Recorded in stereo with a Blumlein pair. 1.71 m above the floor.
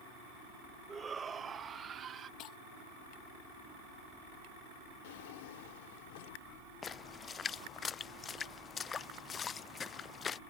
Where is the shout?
15° right; by 2.3 s 25° right.